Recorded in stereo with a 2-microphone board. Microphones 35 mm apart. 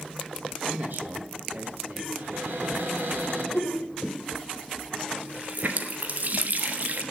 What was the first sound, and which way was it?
A man speaking, 70° right (ahead or behind).